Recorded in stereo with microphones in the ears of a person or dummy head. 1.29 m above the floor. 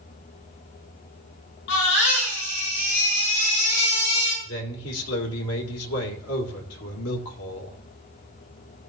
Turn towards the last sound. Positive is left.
turn(degrees=75)  # may be behind; listen again after turning